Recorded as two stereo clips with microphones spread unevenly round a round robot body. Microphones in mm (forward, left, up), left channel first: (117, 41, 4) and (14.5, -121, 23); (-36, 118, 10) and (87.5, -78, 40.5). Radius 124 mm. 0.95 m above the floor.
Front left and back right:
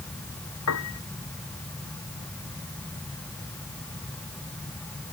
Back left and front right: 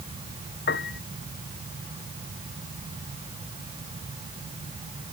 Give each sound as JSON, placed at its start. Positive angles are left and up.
{"t": 0.7, "sound": "a piano", "azimuth_deg": 75}